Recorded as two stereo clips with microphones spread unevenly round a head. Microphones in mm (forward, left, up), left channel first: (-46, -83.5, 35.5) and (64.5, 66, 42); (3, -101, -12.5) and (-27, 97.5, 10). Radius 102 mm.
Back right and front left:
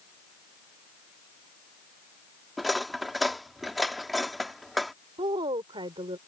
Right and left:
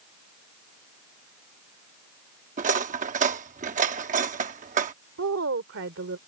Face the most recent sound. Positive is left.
turn(degrees=120)